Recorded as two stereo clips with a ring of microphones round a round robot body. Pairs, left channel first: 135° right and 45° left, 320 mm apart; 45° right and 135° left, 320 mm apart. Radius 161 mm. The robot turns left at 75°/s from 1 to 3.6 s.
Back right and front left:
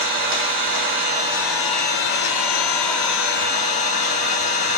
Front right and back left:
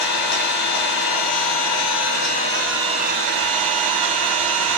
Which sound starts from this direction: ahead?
An engine running, at 0.0 s.